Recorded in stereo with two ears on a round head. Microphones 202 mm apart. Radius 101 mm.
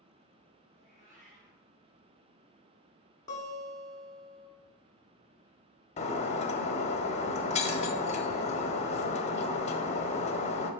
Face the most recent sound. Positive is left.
turn(degrees=30)  # may be behind; listen again after turning